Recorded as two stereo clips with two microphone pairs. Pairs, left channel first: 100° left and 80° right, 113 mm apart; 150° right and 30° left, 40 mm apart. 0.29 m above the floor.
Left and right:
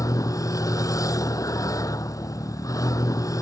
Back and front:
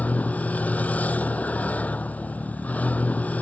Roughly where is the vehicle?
Behind.